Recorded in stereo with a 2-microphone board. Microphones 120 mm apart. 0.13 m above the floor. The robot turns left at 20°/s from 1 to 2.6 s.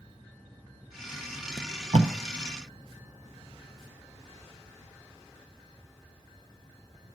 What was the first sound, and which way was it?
Tape being pulled, 75° right (ahead or behind).